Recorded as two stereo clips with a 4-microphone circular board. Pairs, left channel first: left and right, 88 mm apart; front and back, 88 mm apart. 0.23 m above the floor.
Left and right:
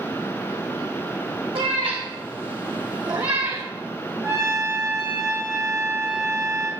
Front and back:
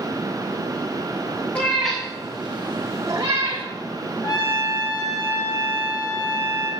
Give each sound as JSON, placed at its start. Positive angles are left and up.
{"t": 1.6, "sound": "a cat meowing", "azimuth_deg": -75, "distance_m": 3.0}
{"t": 4.2, "sound": "a trumpet", "azimuth_deg": -35, "distance_m": 6.0}